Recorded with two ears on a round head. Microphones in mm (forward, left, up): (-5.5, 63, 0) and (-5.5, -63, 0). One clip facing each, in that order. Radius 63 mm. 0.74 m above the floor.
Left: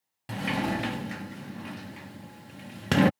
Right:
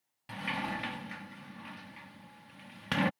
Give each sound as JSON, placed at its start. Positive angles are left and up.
{"t": 0.3, "sound": "a sliding door", "side_deg": 55}